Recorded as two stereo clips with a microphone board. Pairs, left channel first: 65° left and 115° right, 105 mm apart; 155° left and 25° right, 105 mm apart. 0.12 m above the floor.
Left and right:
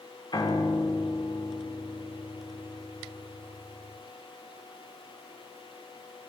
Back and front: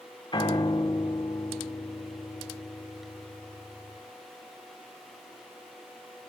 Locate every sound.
0.3 s a piano: 115° left, 3 m